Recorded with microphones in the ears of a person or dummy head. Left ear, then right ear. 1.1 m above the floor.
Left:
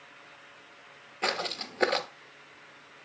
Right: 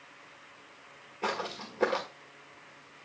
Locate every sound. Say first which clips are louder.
1.2 s footsteps: left 3 dB; 30° left (ahead or behind), 1.2 m